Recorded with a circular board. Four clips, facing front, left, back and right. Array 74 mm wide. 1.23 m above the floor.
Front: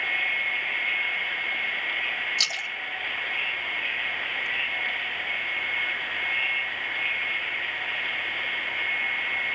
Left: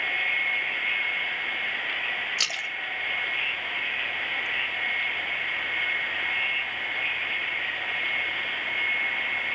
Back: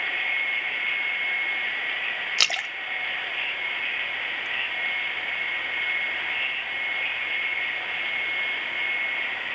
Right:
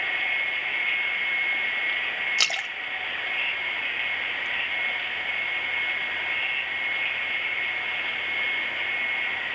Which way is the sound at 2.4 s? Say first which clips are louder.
Right 2 dB, back 3 dB; 155° right.